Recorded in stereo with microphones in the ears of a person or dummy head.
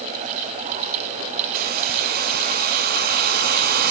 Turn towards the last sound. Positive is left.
turn(degrees=-55)  # may be behind; listen again after turning